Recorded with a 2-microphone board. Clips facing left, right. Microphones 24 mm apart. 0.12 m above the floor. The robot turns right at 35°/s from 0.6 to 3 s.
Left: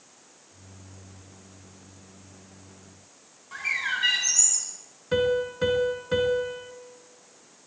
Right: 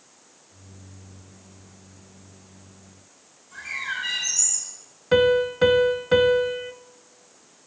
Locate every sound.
3.5 s a bird: 50° left (ahead or behind), 8.5 m
5.1 s a piano: 30° right (ahead or behind), 0.7 m